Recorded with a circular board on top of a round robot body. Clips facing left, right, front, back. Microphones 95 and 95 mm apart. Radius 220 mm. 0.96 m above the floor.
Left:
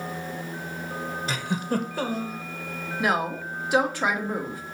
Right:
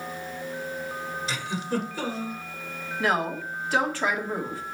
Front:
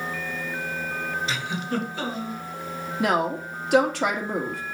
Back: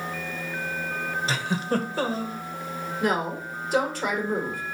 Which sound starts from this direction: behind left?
A giggle, at 1.3 s.